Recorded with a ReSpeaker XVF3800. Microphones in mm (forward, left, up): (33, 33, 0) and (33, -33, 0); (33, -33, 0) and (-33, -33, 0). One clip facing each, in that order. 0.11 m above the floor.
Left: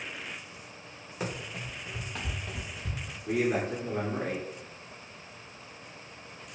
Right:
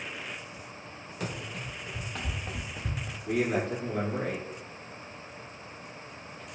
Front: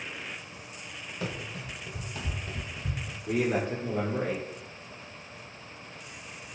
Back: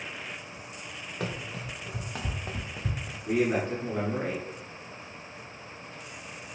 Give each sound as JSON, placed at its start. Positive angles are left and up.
{"t": 1.2, "sound": "running footsteps", "azimuth_deg": 155, "distance_m": 1.1}
{"t": 3.3, "sound": "a man speaking", "azimuth_deg": 170, "distance_m": 1.2}